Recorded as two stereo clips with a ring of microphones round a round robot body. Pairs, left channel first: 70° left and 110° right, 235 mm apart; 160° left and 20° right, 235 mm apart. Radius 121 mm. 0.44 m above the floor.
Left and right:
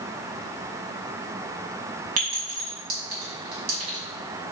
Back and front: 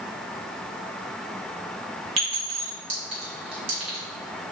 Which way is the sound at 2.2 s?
85° right.